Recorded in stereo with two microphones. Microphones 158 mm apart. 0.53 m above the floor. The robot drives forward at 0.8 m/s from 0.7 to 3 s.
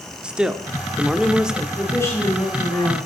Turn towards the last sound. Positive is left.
turn(degrees=20)  # may be behind; listen again after turning